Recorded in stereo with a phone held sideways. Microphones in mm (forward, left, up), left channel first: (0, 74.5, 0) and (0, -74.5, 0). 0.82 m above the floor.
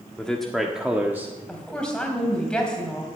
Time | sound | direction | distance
0.2 | a man speaking | 5° left (ahead or behind) | 1.4 m
1.5 | a woman speaking | 5° left (ahead or behind) | 4.5 m